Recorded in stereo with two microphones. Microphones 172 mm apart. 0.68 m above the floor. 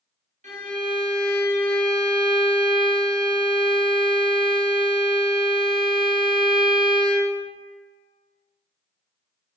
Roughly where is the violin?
Right.